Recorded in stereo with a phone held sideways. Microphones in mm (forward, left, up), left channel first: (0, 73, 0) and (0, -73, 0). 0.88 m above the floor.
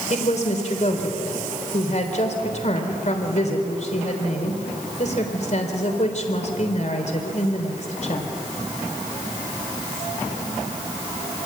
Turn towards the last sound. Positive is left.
turn(degrees=55)  # may be behind; listen again after turning